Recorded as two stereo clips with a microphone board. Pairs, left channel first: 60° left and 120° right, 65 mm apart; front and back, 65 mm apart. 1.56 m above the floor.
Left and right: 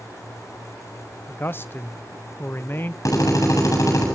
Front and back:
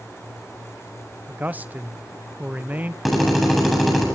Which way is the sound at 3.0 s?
90° left.